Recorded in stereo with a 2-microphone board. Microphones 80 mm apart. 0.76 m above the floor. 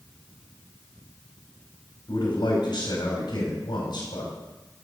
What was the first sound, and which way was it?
A man speaking, 75° left (ahead or behind).